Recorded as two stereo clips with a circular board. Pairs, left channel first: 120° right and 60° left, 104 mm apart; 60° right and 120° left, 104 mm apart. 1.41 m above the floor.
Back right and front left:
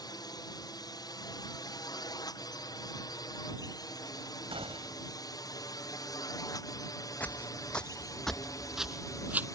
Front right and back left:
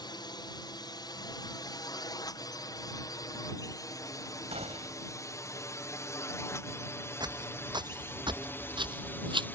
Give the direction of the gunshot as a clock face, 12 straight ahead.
9 o'clock.